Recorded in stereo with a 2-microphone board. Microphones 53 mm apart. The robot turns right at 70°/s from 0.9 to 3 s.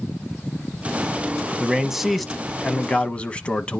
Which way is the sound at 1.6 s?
15° right (ahead or behind).